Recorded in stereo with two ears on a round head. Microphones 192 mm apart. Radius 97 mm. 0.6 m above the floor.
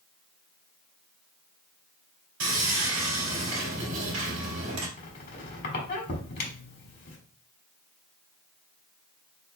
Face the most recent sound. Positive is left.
turn(degrees=45)  # may be behind; listen again after turning